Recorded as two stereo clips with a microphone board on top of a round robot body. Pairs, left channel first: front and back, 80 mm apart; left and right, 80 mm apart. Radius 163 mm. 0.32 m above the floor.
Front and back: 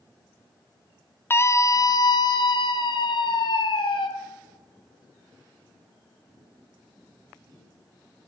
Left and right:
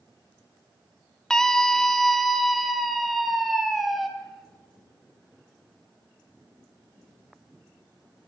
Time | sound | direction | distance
1.3 | a scream | 15° left | 1.1 m